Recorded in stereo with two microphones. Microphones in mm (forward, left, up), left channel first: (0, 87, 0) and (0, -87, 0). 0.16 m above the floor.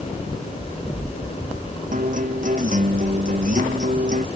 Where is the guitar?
50° right (ahead or behind).